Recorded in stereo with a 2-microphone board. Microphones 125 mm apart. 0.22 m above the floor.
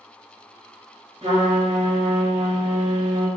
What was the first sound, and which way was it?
A trumpet, 50° right (ahead or behind).